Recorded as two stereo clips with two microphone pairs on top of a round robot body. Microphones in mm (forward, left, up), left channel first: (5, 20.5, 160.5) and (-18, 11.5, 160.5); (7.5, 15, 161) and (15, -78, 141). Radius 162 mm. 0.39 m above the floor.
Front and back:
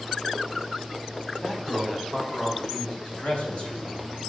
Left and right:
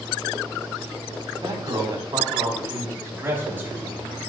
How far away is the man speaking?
About 4.5 m.